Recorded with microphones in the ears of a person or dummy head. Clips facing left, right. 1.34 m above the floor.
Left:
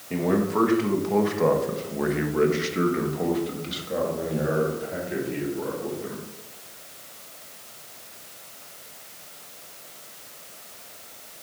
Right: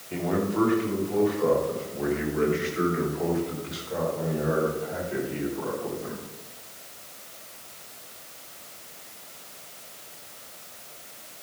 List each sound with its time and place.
0.1 s a man speaking: 65° left (ahead or behind), 1.7 m; by 6.2 s 15° left (ahead or behind), 3.5 m